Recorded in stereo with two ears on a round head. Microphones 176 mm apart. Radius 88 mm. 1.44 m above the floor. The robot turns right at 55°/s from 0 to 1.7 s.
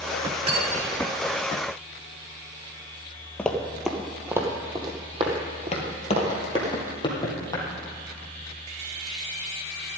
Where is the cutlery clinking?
30° right (ahead or behind), 2 m; by 1.0 s 5° right (ahead or behind), 2 m.